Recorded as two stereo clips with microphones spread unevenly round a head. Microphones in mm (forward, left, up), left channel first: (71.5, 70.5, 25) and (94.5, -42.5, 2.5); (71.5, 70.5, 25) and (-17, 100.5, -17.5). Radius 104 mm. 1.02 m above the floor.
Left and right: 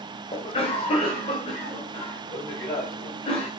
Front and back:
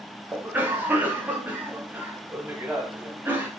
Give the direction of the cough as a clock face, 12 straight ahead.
7 o'clock.